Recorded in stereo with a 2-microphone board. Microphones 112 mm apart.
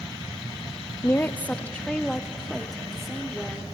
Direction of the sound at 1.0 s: 25° left (ahead or behind).